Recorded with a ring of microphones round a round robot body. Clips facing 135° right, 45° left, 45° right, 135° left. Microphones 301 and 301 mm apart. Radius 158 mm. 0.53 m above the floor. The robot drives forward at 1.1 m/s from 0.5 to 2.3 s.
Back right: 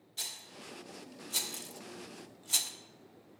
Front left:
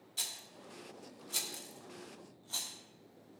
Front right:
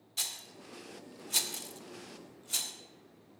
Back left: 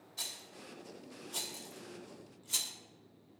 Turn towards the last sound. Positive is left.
turn(degrees=-145)